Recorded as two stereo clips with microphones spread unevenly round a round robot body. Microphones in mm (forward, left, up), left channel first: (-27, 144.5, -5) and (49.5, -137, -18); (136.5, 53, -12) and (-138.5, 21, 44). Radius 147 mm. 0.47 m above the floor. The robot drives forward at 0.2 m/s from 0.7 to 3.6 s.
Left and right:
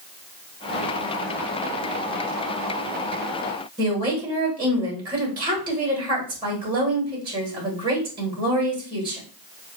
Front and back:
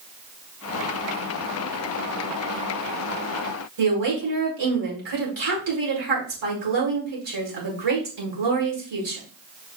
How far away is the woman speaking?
About 1.8 m.